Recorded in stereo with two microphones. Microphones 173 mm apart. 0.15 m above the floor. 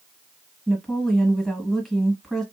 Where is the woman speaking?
Centre (ahead or behind), 1.3 m.